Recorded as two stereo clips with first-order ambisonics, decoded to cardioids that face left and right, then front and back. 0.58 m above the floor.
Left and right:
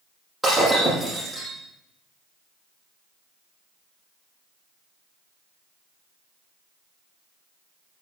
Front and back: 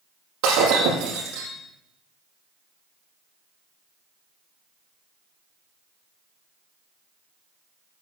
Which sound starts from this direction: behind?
Breaking glass, at 0.4 s.